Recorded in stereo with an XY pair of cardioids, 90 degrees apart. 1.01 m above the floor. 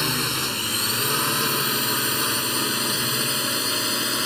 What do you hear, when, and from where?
0.0 s a drone: 5° left